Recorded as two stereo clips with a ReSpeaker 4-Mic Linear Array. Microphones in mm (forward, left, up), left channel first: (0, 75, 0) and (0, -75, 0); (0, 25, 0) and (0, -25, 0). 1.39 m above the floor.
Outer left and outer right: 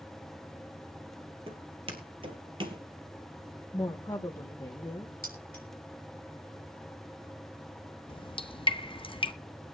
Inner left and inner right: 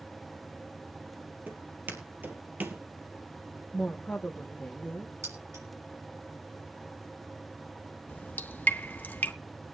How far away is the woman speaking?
About 1.0 m.